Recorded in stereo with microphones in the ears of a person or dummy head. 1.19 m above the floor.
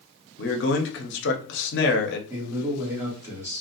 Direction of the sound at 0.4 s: 55° left (ahead or behind).